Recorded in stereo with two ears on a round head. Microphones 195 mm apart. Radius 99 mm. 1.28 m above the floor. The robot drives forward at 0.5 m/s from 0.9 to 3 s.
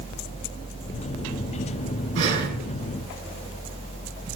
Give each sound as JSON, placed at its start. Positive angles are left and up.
{"t": 2.1, "sound": "breathing", "side_deg": -60, "distance_m": 3.5}